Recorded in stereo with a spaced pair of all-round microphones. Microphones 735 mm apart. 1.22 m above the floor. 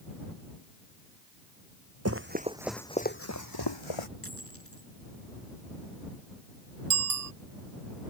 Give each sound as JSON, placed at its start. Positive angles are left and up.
{"t": 2.0, "sound": "running footsteps", "side_deg": -20}
{"t": 4.2, "sound": "a dropped coin", "side_deg": 20}
{"t": 6.9, "sound": "a bicycle bell", "side_deg": -55}